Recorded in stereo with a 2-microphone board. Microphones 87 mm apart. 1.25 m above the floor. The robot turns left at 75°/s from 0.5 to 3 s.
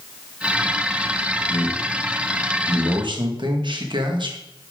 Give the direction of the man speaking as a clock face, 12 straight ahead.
11 o'clock.